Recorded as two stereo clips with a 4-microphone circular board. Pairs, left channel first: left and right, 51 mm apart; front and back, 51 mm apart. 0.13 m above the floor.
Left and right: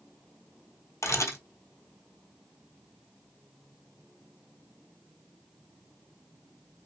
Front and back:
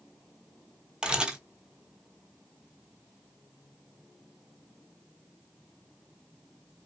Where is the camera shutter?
105° left, 0.9 m.